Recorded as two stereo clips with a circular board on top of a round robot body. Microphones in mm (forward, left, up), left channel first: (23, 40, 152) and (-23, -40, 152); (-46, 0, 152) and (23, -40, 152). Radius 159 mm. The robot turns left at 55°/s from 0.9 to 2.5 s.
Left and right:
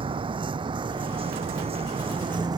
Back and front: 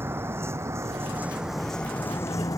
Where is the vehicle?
95° right; by 2.6 s 165° right.